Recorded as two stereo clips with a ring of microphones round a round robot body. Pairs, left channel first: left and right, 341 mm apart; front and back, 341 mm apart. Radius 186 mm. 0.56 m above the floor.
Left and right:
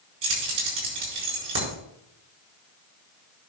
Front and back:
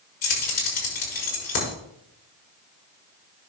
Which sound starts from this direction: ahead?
Keys jangling, at 0.2 s.